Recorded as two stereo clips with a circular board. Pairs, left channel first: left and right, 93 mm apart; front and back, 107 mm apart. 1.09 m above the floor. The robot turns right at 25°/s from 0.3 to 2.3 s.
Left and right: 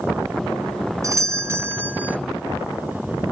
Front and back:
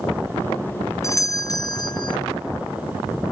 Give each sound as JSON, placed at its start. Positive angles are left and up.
{"t": 1.0, "sound": "a doorbell", "azimuth_deg": -50, "distance_m": 0.6}